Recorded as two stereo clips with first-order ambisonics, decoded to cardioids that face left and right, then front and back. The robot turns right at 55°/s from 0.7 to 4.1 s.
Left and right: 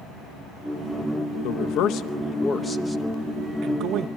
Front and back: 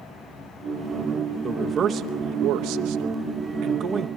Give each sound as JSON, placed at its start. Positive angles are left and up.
{"t": 1.4, "sound": "a man speaking", "azimuth_deg": 95, "distance_m": 0.9}